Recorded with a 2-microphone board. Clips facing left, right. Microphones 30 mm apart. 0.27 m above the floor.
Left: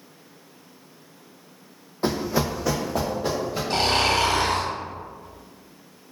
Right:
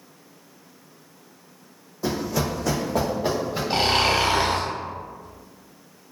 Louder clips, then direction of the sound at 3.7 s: Right 1 dB; 15° right (ahead or behind).